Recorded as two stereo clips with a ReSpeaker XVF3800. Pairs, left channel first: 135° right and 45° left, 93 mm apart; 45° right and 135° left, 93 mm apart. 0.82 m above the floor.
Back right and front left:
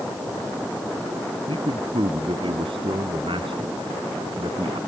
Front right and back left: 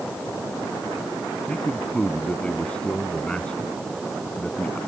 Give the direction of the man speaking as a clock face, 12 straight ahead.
11 o'clock.